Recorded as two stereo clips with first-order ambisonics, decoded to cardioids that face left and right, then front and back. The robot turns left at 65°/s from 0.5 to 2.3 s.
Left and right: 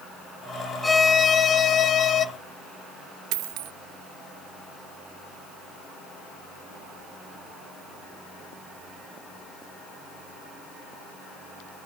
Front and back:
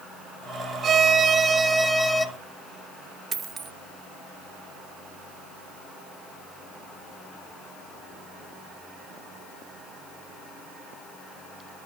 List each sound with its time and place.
0.8 s a violin: 165° left, 0.5 m; by 2.2 s 70° left, 0.5 m
3.3 s a dropped coin: 110° right, 0.6 m